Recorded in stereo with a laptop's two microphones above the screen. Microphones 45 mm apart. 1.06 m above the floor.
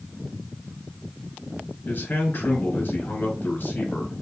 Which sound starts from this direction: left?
A man speaking, at 1.9 s.